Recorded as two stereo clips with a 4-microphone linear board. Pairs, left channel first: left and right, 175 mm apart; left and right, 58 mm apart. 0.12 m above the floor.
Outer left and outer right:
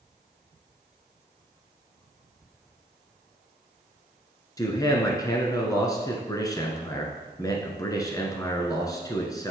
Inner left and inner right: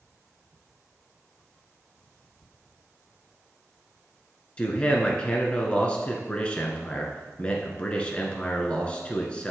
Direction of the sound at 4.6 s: 20° left (ahead or behind).